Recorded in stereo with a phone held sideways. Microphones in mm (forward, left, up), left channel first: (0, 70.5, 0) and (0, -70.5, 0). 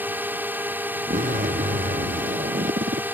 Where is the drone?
15° right (ahead or behind).